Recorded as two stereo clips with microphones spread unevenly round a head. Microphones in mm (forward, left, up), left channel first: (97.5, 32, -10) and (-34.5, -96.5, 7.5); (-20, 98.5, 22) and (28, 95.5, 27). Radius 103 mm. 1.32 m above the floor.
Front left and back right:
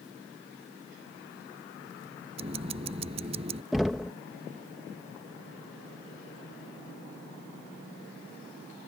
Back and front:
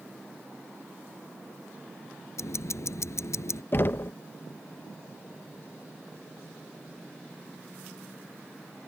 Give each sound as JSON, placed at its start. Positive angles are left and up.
{"t": 2.4, "sound": "ticking", "azimuth_deg": 160}
{"t": 3.7, "sound": "knocking", "azimuth_deg": 135}